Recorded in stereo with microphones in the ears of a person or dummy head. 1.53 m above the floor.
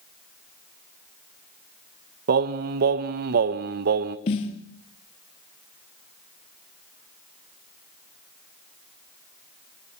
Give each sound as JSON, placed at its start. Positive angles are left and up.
{"t": 2.3, "sound": "singing", "side_deg": -50, "distance_m": 1.2}
{"t": 4.3, "sound": "a snare drum", "side_deg": 30, "distance_m": 1.2}